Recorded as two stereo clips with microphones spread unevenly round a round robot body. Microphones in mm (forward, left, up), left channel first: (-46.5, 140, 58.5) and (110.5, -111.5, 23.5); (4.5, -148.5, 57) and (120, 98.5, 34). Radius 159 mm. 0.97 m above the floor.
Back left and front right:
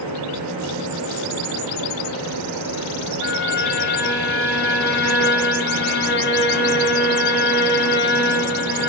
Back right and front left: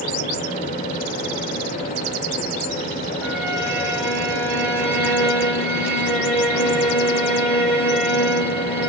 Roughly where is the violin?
Behind.